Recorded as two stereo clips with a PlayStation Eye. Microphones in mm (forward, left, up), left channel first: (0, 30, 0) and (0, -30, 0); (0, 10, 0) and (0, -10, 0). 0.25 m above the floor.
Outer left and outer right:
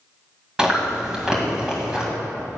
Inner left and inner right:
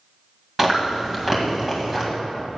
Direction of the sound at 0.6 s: 10° right (ahead or behind).